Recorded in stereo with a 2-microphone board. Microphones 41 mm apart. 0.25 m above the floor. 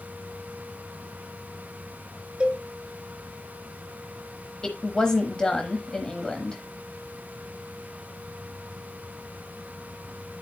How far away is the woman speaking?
About 1.0 m.